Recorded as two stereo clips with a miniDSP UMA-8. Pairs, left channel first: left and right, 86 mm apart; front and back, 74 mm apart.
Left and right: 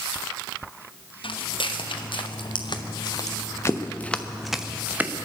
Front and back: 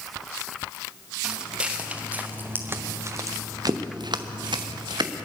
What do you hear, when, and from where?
1.2 s footsteps: 100° left, 3 m; by 5.3 s 155° right, 1.8 m